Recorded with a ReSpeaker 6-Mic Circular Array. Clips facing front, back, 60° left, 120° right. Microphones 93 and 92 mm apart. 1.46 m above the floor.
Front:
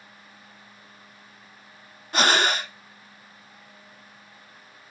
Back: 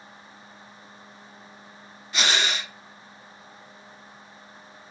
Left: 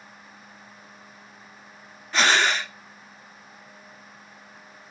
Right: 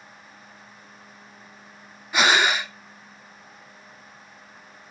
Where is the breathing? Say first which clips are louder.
Front 5 dB, right 1 dB; 40° right, 0.6 m.